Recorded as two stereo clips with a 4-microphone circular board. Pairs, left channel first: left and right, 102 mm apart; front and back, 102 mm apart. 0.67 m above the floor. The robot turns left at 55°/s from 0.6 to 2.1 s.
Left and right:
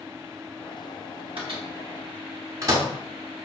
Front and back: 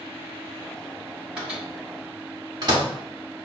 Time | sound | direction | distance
1.4 | a microwave | 100° right | 1.5 m